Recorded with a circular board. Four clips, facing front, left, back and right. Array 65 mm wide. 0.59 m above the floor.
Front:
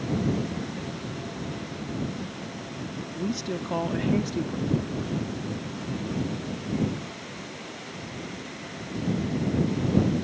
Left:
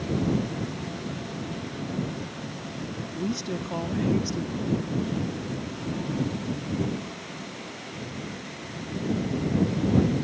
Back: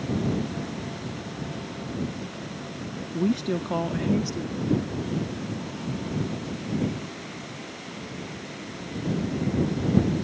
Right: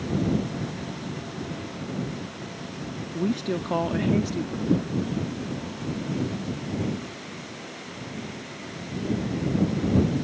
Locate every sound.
3.1 s a woman speaking: 150° right; by 4.6 s 40° right
4.7 s a whoosh: 125° right